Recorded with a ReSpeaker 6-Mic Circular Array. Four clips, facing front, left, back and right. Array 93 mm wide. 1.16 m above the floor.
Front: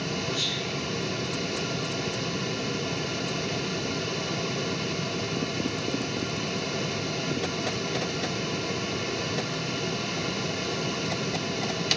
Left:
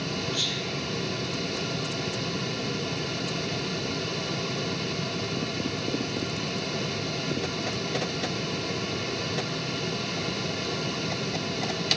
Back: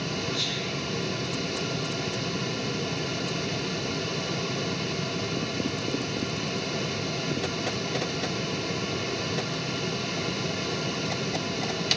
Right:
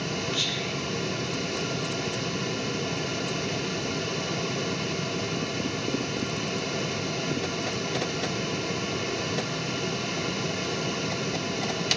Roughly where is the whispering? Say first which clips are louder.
Right 1 dB, even; right.